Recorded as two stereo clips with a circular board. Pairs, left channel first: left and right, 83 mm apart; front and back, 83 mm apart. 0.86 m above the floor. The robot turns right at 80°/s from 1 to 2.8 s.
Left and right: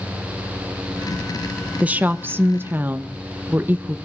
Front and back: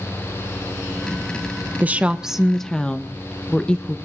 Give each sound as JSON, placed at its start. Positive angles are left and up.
{"t": 1.8, "sound": "a woman speaking", "azimuth_deg": -145, "distance_m": 0.5}